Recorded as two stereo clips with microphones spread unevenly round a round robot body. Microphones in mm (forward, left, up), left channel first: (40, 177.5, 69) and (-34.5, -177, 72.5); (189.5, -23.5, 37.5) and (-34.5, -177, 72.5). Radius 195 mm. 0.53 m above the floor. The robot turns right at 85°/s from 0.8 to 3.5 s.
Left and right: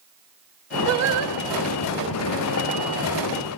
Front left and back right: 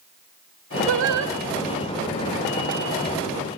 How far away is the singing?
About 3 m.